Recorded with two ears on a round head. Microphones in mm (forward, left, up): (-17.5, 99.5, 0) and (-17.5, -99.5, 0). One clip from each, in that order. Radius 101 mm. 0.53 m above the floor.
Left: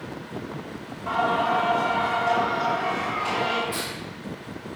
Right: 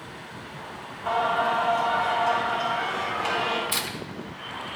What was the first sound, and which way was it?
Singing, 50° right (ahead or behind).